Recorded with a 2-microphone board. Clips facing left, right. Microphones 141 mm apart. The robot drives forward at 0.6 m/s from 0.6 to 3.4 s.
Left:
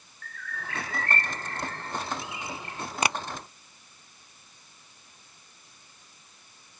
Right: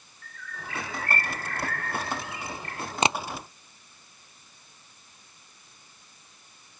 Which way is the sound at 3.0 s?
20° right (ahead or behind).